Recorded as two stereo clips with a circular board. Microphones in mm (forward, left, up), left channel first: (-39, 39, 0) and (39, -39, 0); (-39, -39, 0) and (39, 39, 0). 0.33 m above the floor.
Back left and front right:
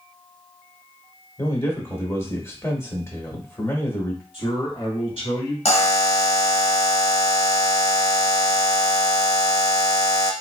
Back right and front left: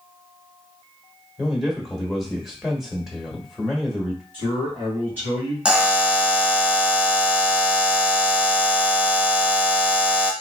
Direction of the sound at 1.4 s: 125° left.